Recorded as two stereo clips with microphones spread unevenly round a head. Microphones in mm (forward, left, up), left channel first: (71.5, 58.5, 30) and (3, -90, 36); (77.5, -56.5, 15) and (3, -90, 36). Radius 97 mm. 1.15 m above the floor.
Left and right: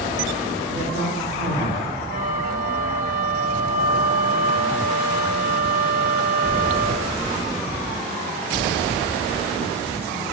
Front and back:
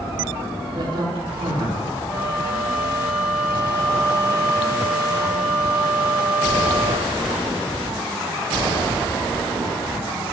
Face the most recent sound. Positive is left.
turn(degrees=-80)